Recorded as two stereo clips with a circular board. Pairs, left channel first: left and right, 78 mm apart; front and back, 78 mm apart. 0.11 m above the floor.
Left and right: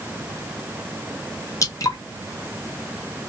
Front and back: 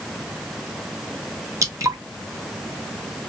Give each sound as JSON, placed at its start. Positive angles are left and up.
{"t": 1.6, "sound": "dripping", "azimuth_deg": 135, "distance_m": 1.3}